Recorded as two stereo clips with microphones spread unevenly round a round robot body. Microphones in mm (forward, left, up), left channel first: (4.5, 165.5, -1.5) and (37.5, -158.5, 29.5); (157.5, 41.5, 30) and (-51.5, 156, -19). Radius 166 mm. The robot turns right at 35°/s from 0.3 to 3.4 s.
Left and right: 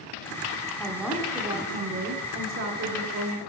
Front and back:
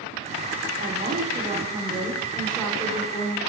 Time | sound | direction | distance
0.8 | a woman speaking | 175° left | 1.6 m